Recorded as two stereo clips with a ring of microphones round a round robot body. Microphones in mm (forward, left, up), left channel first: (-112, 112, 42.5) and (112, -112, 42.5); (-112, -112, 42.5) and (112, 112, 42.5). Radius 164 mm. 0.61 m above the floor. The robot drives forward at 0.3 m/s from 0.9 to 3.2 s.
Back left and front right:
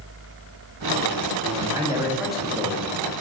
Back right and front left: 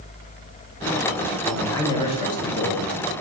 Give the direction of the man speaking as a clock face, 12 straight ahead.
2 o'clock.